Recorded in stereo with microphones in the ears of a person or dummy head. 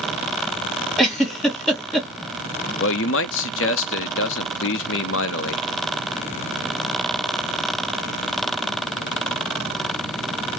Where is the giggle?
Centre (ahead or behind), 1.4 m.